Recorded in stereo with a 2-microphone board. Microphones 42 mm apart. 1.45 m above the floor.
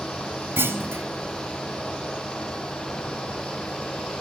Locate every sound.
0.6 s a clunk: 75° right (ahead or behind), 3 m